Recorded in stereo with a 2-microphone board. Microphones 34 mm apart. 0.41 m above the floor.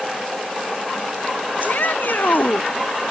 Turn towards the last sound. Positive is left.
turn(degrees=60)  # may be behind; listen again after turning